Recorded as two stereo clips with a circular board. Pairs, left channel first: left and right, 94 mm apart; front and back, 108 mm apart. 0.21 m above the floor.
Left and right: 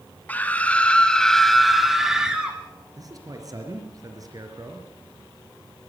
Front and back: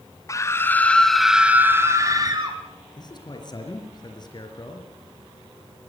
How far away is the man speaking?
About 4 m.